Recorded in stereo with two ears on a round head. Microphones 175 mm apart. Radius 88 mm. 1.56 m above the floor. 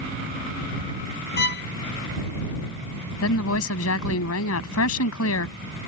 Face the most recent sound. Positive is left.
turn(degrees=90)